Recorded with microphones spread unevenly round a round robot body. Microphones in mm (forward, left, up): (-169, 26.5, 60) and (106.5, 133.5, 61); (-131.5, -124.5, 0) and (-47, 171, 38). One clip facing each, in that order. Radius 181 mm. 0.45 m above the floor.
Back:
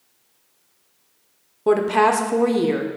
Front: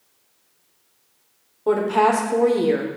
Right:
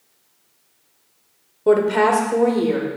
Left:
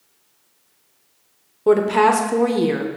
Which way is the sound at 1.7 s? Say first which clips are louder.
Back 1 dB, even; 160° left.